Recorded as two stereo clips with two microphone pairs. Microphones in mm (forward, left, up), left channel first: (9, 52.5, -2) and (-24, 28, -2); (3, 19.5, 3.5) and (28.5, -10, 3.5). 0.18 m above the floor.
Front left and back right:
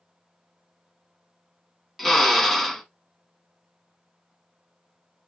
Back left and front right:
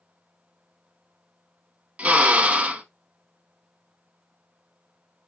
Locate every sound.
2.0 s a drill: 45° right, 0.6 m